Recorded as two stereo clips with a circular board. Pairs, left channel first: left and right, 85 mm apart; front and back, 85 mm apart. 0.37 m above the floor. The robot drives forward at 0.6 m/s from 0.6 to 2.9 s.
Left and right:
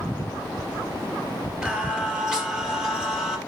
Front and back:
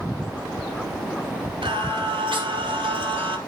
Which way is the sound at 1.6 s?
170° right.